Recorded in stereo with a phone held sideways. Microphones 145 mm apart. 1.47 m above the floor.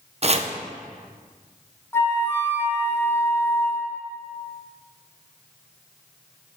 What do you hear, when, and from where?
0.2 s chopping: 45° right (ahead or behind), 0.6 m
1.9 s a flute: 15° left (ahead or behind), 1.0 m